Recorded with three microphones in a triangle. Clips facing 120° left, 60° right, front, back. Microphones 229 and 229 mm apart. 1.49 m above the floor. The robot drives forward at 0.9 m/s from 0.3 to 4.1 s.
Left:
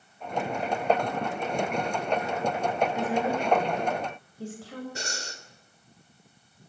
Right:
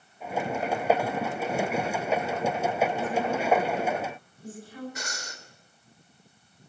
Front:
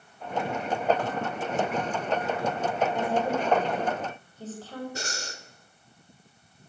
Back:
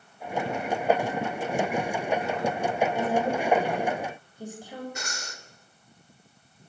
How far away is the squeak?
No squeak in this recording.